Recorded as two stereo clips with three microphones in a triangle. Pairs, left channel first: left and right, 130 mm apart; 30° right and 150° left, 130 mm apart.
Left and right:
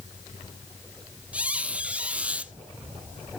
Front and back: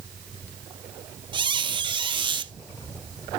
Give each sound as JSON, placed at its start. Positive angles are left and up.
{"t": 1.3, "sound": "a squeak", "azimuth_deg": -170, "distance_m": 0.6}